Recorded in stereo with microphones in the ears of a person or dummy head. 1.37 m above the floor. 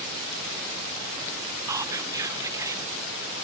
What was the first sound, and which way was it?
Whispering, 20° right (ahead or behind).